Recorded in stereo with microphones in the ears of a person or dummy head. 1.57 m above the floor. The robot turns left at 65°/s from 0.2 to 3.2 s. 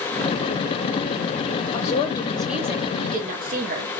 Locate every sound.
1.7 s a woman speaking: 45° left, 1.4 m; by 3.9 s 50° right, 1.4 m